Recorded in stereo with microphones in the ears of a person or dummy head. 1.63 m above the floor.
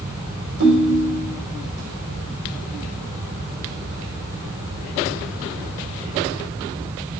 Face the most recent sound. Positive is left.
turn(degrees=-70)  # may be behind; listen again after turning